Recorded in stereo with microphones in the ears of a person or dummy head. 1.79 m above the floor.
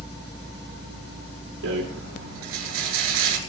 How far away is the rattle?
About 5.5 m.